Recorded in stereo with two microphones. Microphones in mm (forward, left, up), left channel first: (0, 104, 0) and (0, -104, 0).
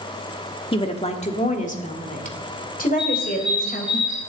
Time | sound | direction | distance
0.7 | a woman speaking | 25° left (ahead or behind) | 1.3 m
3.0 | a bird | 25° left (ahead or behind) | 8.5 m